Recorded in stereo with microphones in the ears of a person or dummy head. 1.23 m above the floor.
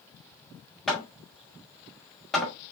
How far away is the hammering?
About 1.5 m.